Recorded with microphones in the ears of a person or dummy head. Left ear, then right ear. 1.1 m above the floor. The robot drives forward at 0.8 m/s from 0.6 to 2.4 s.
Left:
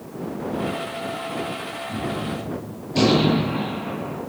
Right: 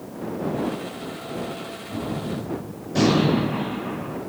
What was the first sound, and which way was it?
A gunshot, 50° right (ahead or behind).